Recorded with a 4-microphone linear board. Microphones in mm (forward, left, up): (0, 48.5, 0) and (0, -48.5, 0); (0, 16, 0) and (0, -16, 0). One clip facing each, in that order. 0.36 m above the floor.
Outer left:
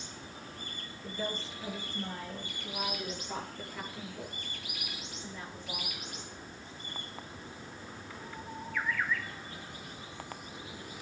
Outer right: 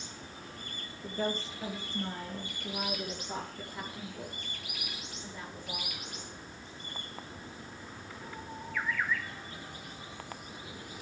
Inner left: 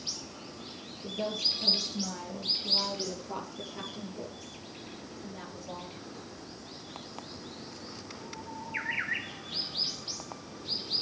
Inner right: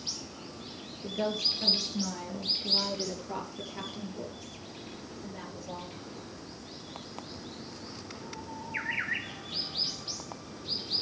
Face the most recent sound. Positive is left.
turn(degrees=-15)  # may be behind; listen again after turning